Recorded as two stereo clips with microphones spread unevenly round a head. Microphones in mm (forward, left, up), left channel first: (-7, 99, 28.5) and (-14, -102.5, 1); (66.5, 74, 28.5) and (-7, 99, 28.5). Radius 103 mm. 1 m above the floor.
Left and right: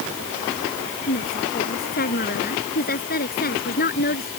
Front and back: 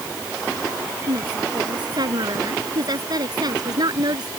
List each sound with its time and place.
1.1 s a woman speaking: 135° left